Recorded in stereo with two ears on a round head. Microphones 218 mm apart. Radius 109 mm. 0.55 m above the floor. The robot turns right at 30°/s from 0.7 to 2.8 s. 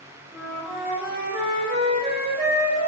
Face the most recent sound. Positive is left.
turn(degrees=-120)